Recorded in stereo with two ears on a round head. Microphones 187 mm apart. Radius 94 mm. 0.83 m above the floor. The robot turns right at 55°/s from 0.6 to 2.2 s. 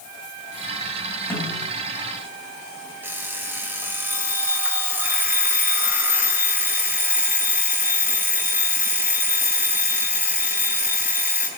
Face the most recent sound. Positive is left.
turn(degrees=-10)  # may be behind; listen again after turning